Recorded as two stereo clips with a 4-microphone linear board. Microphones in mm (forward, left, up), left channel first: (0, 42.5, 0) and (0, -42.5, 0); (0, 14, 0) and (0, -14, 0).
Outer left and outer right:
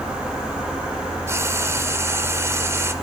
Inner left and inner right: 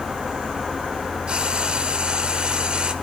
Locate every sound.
1.3 s frying: 30° right (ahead or behind), 1.4 m